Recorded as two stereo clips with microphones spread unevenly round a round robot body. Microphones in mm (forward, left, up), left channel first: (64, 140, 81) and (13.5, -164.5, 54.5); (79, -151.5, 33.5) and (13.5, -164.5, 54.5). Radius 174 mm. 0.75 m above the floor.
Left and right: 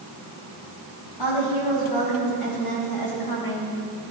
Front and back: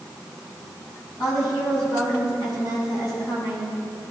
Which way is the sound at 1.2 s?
95° left.